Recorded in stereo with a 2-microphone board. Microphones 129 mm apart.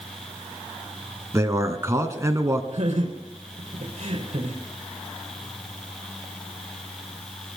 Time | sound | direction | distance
1.3 | a man speaking | 25° right (ahead or behind) | 1.5 m
2.7 | laughter | 55° right (ahead or behind) | 4 m